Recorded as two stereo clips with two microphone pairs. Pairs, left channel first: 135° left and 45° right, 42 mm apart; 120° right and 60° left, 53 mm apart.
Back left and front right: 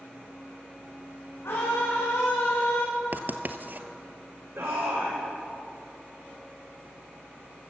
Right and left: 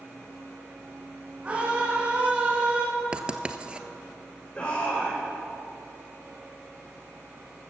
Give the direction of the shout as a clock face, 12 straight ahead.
2 o'clock.